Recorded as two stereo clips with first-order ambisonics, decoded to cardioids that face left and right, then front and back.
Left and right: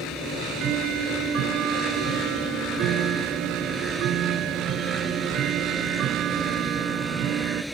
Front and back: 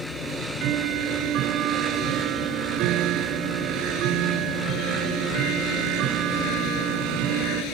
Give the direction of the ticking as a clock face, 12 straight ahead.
5 o'clock.